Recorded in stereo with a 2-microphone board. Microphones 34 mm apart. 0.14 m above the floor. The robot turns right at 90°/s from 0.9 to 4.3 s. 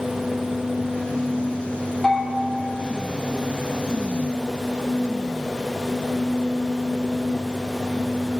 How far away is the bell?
About 2.5 m.